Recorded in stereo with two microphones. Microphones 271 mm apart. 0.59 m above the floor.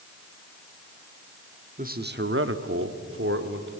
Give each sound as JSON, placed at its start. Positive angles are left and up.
{"t": 1.8, "sound": "a man speaking", "side_deg": -30, "distance_m": 1.4}